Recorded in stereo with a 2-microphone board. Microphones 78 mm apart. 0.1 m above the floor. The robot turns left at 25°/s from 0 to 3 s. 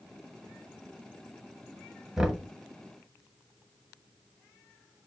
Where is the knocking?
5° right (ahead or behind), 1.1 m; by 2.5 s 10° right (ahead or behind), 1.1 m.